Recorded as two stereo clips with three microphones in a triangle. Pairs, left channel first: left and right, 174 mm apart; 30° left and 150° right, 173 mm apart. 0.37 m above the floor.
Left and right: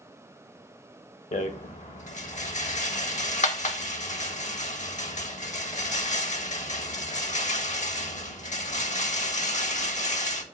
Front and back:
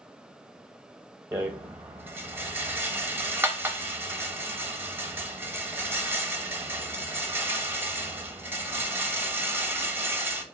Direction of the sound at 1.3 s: 135° left.